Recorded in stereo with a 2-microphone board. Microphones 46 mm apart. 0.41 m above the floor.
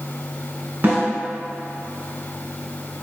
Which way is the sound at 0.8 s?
40° right (ahead or behind).